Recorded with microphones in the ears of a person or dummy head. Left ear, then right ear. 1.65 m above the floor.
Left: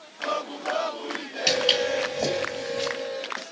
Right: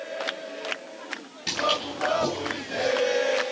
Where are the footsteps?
40° left (ahead or behind), 2 m; by 2.9 s 45° left (ahead or behind), 2.5 m.